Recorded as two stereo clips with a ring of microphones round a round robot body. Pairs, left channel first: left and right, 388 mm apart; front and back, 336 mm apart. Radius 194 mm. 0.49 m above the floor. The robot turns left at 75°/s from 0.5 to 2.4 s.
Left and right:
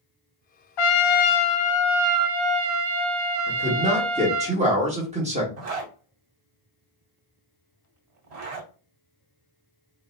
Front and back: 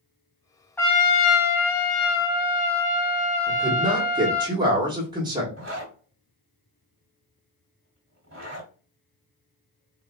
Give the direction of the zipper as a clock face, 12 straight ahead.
4 o'clock.